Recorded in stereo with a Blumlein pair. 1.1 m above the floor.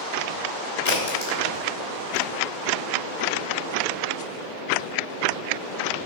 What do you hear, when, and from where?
0.8 s a crack: 65° left, 3 m